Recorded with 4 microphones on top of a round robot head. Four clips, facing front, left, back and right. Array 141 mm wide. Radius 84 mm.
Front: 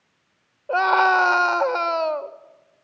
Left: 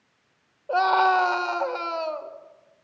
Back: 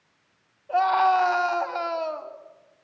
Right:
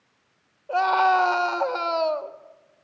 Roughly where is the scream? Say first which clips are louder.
Even, front 2 dB; ahead.